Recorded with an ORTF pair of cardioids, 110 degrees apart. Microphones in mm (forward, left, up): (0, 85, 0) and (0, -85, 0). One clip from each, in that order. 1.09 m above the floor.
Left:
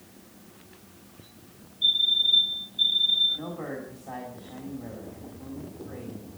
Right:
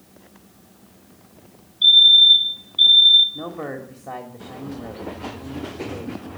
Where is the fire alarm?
65° right, 5.5 m.